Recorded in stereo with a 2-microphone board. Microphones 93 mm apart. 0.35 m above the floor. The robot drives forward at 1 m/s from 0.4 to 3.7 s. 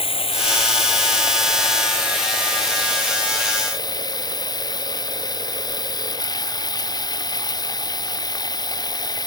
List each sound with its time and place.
0.0 s running water: 75° left (ahead or behind); by 9.3 s 45° left (ahead or behind)